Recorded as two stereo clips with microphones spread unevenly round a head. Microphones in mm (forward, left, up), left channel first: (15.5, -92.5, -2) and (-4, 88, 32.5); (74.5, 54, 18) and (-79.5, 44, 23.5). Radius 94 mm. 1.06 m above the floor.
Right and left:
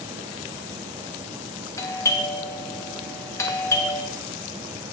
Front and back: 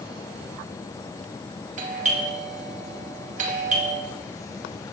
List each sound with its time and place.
1.8 s a doorbell: 145° right, 1.7 m